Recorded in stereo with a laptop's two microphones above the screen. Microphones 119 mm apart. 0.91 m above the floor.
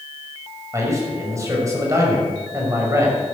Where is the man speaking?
25° right (ahead or behind), 6 m.